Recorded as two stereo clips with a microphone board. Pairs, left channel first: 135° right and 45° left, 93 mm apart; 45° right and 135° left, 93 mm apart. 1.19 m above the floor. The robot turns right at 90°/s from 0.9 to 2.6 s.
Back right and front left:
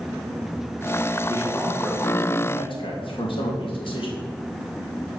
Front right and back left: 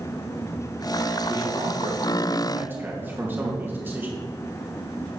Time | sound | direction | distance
1.3 | a man speaking | 85° left | 2 m